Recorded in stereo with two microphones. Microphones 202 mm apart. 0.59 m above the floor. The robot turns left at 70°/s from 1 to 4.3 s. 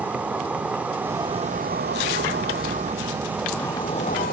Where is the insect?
10° right, 1.3 m; by 4.3 s 120° left, 1.3 m.